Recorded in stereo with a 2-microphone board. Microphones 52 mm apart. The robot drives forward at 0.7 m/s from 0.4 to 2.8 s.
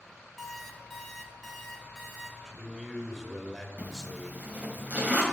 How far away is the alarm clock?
About 1.8 m.